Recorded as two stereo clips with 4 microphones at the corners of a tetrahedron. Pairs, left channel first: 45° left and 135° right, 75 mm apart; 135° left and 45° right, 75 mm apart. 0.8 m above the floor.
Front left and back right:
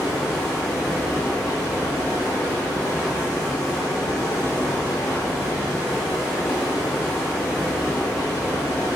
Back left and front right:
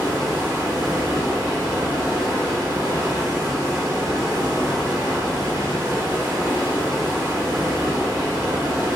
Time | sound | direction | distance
0.0 | running water | 5° right | 1.2 m